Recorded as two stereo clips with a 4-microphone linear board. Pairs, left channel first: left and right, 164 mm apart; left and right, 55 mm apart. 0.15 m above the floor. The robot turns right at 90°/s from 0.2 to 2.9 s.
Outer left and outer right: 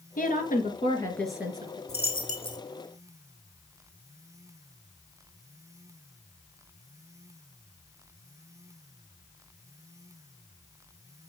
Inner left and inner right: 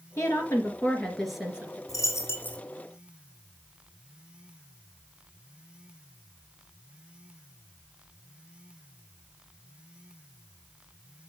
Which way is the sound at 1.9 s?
95° left.